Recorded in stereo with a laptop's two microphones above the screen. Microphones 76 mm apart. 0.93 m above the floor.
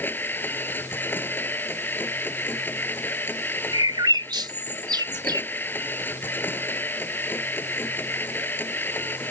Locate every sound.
0.0 s a machine running: 25° left (ahead or behind)
3.7 s a bird: 75° right (ahead or behind)